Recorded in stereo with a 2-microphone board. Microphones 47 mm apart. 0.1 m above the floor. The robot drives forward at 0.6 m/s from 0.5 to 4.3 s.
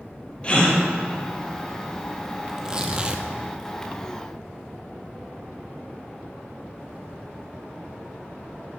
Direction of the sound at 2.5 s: 15° right (ahead or behind).